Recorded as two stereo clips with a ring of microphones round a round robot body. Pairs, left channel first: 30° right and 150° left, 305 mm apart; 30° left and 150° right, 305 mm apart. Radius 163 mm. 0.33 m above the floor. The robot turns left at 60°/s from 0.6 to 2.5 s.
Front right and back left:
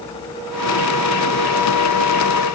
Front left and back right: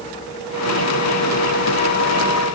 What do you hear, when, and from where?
Only background noise.